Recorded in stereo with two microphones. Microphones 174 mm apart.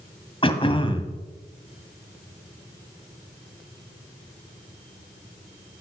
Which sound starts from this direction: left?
Throat clearing, at 0.4 s.